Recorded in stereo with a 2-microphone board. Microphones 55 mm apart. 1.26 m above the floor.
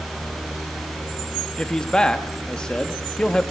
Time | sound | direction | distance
1.6 | a man speaking | 15° left (ahead or behind) | 1.8 m